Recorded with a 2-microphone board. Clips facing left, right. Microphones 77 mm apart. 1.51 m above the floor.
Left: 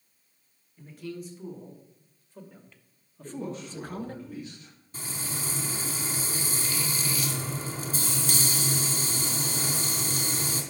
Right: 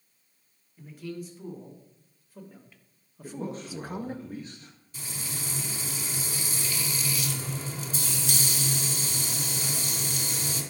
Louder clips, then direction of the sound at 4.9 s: Left 2 dB; 40° left (ahead or behind).